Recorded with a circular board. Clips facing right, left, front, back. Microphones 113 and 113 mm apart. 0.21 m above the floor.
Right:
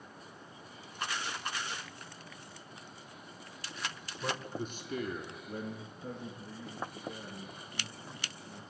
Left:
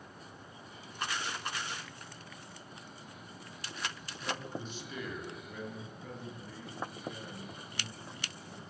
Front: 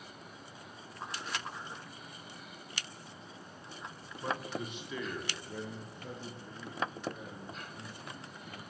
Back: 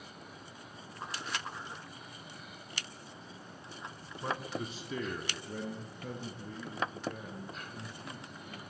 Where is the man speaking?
110° right, 3 m; by 8.6 s 170° right, 7.5 m.